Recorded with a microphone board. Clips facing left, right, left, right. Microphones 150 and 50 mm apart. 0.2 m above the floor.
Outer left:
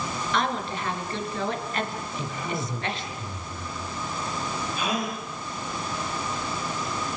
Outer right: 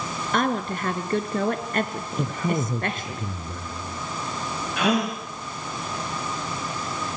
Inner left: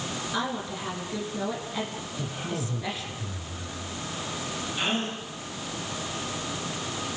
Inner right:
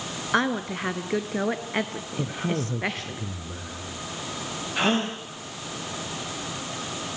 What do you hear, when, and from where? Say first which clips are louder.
0.3 s a woman speaking: outer right 4 dB, inner right 8 dB; 50° right (ahead or behind), 3 m
2.2 s a man speaking: outer right 7 dB, inner right 6 dB; 55° right (ahead or behind), 3 m
4.8 s a gasp: outer right 8 dB, inner right 6 dB; 75° right (ahead or behind), 6.5 m